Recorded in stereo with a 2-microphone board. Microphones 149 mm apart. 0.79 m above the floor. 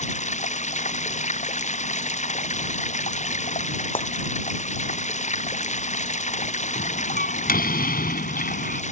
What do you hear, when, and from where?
0.0 s running water: 55° left (ahead or behind)
4.0 s breaking glass: 35° left (ahead or behind)
6.8 s a door slam: 80° left